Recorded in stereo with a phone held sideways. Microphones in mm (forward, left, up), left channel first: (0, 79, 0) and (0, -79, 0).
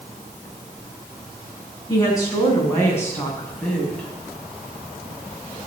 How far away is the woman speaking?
About 7.5 m.